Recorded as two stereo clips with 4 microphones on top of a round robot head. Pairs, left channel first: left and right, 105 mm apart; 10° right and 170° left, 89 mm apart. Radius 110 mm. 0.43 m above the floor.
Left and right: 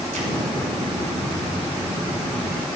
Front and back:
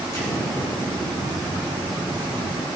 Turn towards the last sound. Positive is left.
turn(degrees=-70)